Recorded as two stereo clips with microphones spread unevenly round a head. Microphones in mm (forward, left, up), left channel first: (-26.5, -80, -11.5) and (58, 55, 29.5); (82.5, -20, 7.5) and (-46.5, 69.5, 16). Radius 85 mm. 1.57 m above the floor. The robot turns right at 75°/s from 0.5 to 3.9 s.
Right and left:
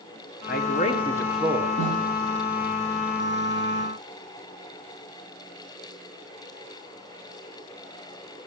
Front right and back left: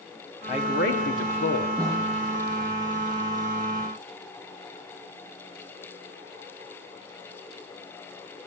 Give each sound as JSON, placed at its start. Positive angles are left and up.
{"t": 0.5, "sound": "a man speaking", "azimuth_deg": -100, "distance_m": 1.4}
{"t": 1.8, "sound": "a snare drum", "azimuth_deg": 75, "distance_m": 8.5}